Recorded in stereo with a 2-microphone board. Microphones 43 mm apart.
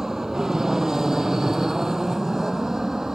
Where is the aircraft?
10° right (ahead or behind).